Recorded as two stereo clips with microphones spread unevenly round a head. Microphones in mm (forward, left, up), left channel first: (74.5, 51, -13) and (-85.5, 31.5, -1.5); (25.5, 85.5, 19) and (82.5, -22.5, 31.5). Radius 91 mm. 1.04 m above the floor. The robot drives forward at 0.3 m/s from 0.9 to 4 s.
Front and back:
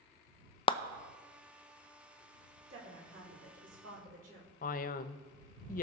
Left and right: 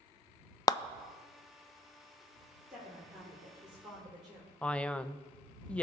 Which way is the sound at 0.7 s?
60° left.